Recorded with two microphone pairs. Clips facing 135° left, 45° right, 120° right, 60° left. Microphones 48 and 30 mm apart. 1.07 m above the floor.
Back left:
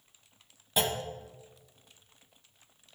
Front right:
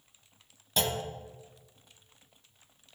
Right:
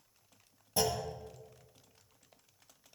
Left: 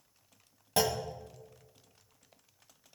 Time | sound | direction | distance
0.8 | a clunk | 60° left | 1.2 m